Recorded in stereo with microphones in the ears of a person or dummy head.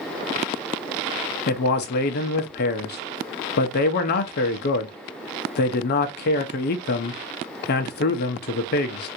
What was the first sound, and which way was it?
A man speaking, 50° left (ahead or behind).